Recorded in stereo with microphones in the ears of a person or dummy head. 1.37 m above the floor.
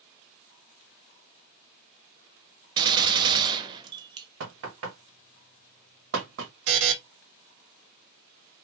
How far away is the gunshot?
About 0.8 m.